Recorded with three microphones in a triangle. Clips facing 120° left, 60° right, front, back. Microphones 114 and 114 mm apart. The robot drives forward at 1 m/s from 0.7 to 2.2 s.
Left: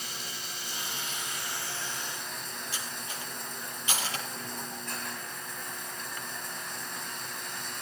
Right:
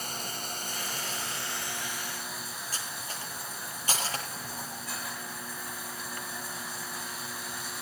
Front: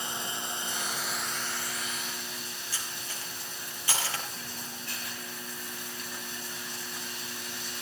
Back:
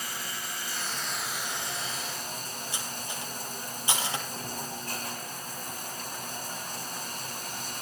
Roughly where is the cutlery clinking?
Right.